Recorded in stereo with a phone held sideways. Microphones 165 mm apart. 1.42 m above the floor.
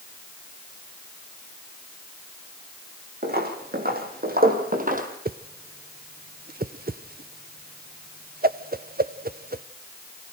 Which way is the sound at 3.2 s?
70° right (ahead or behind).